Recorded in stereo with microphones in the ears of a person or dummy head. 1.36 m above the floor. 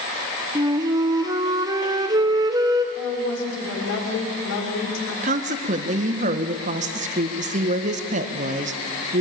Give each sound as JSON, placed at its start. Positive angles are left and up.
{"t": 0.6, "sound": "a flute", "side_deg": -20, "distance_m": 1.0}
{"t": 3.0, "sound": "a woman speaking", "side_deg": 80, "distance_m": 5.0}
{"t": 5.2, "sound": "a woman speaking", "side_deg": -40, "distance_m": 1.4}